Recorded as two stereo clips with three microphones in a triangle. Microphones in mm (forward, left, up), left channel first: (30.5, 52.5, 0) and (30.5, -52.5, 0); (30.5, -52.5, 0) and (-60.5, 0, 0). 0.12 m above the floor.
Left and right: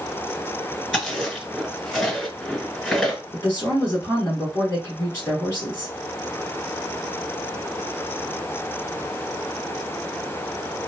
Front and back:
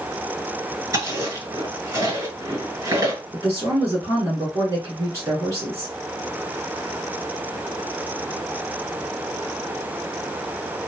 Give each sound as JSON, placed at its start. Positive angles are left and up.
{"t": 0.9, "sound": "chewing", "azimuth_deg": 180, "distance_m": 2.0}
{"t": 3.3, "sound": "a woman speaking", "azimuth_deg": 135, "distance_m": 1.1}